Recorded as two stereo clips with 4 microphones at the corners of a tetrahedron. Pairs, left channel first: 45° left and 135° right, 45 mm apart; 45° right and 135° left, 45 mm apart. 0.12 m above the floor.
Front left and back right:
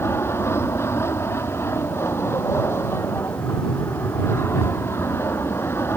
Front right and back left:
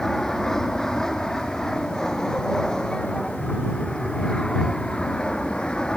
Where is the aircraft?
35° left; by 6.0 s 30° left.